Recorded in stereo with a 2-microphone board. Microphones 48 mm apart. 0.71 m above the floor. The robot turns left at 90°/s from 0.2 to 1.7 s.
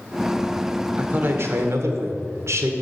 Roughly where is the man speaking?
Ahead right.